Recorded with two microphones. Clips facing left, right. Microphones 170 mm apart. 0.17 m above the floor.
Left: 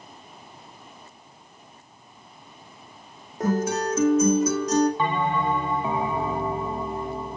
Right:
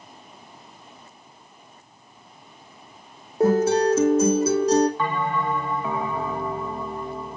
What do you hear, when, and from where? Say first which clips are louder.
3.4 s a guitar: right 6 dB; 30° right (ahead or behind), 3 m
5.0 s a bell: left 1 dB; 20° left (ahead or behind), 0.6 m